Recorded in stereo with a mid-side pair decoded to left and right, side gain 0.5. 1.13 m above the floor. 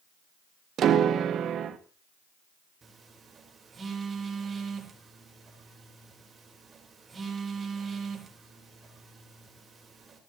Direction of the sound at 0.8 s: 60° right.